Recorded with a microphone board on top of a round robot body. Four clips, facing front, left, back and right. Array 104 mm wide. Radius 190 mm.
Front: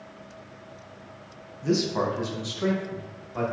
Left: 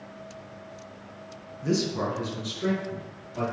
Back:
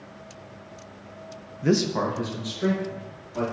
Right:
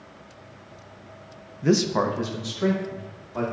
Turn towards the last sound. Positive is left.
turn(degrees=-65)